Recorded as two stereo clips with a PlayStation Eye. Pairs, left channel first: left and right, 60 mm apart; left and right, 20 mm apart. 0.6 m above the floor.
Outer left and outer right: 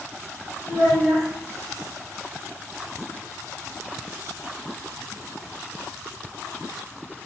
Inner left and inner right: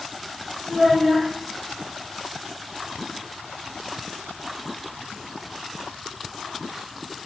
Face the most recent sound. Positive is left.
turn(degrees=10)  # may be behind; listen again after turning